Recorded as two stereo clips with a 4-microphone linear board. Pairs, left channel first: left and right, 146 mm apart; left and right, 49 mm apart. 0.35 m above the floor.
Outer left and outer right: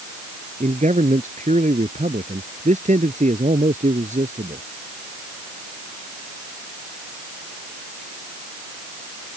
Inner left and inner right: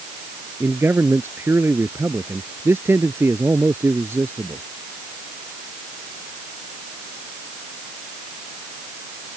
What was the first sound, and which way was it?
A man speaking, 60° right (ahead or behind).